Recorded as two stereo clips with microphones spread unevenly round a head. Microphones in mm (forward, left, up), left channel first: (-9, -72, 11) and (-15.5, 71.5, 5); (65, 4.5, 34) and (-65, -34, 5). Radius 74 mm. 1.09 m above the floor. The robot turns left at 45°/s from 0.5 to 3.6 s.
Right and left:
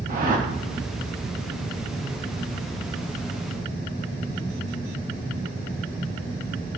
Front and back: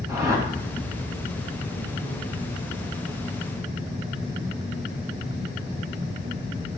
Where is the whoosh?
125° left, 1.5 m.